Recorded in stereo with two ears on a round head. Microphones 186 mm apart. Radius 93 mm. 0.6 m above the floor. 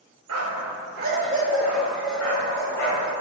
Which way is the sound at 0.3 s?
80° right.